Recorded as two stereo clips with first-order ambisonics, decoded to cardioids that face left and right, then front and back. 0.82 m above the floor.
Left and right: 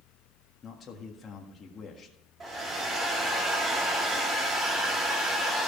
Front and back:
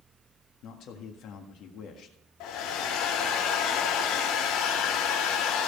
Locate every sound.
0.6 s a man speaking: 30° left, 1.5 m
2.4 s a hair dryer: 25° right, 2.0 m